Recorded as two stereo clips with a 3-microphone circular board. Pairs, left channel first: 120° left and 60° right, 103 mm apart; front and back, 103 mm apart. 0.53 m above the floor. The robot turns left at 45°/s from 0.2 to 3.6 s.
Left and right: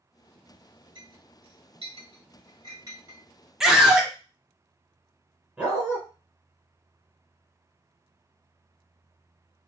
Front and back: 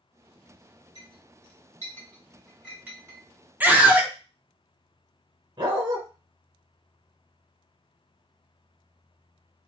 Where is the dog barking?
135° right, 1.4 m.